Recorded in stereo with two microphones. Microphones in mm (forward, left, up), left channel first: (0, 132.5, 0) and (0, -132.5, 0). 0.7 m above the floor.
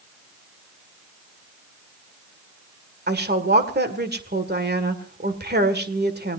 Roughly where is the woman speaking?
Right.